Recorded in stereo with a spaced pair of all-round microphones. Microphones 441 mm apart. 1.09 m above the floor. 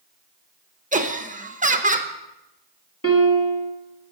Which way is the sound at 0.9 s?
15° right (ahead or behind).